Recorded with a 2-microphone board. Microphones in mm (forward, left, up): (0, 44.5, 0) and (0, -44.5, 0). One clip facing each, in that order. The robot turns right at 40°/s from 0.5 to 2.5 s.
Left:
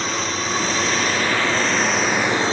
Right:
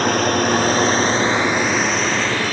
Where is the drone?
55° right; by 2.5 s 25° left.